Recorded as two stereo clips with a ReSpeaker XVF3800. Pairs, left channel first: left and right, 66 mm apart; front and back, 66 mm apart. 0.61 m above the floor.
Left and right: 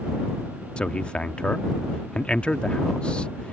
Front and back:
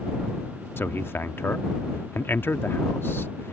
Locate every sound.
0.8 s a man speaking: 25° left